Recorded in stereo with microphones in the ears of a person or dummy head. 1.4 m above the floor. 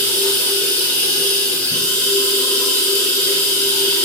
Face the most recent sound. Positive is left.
turn(degrees=15)  # may be behind; listen again after turning